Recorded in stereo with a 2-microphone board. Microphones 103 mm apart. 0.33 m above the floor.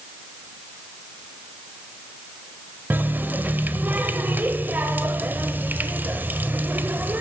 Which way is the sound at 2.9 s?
15° right (ahead or behind).